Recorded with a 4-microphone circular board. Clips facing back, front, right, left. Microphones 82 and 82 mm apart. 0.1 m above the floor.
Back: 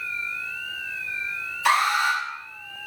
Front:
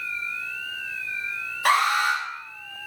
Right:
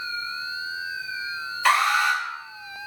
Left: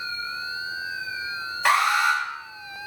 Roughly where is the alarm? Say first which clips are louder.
Even, even; ahead left.